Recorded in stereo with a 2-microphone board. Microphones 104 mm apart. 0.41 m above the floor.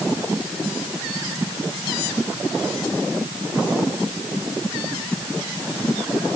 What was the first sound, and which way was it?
Only background noise.